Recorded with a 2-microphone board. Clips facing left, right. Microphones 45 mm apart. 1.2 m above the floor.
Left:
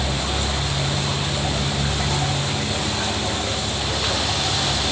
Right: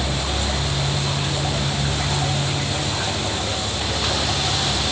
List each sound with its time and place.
Only background noise.